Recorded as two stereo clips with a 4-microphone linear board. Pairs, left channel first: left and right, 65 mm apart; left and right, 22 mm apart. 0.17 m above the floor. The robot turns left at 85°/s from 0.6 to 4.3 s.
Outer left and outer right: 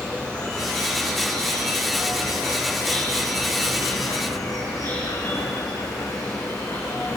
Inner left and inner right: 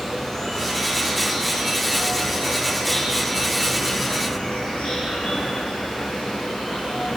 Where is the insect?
15° left, 7.5 m; by 7.2 s 60° left, 7.5 m.